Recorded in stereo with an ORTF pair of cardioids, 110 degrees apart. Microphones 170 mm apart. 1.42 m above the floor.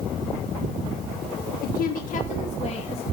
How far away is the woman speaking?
About 1.3 m.